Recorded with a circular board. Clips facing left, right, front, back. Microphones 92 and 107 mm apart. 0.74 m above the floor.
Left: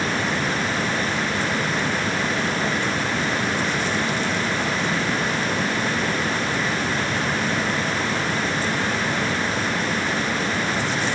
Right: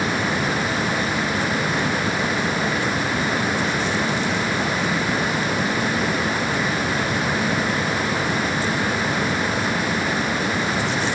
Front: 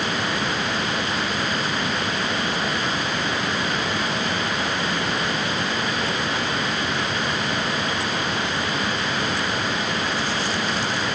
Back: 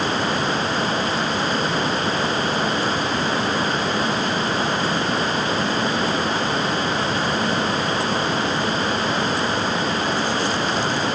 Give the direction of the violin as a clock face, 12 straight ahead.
No violin in this recording.